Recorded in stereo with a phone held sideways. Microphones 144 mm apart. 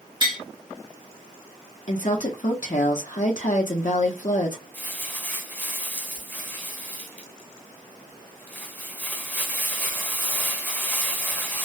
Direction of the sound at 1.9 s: 60° left (ahead or behind).